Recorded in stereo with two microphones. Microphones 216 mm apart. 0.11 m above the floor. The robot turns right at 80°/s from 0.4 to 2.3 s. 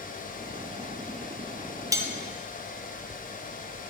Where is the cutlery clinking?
15° right (ahead or behind), 1.4 m; by 2.1 s centre (ahead or behind), 1.4 m.